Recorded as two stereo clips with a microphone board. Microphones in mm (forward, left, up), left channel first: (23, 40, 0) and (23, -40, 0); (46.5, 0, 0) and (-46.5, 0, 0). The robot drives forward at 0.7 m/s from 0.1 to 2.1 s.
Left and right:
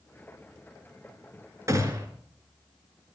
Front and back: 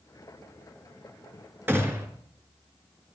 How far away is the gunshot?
About 2.5 m.